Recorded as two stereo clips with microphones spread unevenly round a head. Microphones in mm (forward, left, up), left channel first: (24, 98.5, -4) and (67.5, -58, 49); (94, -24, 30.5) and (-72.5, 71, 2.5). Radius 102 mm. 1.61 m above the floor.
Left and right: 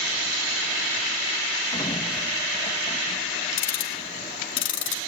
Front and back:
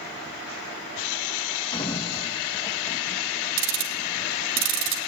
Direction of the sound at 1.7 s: 35° left.